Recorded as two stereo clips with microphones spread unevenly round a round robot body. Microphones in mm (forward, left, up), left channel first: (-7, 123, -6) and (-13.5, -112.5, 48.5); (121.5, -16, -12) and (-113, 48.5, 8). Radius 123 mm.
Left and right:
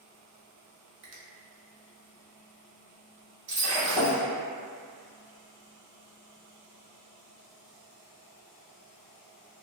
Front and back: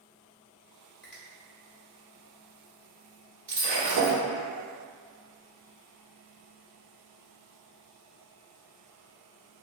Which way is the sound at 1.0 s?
95° right.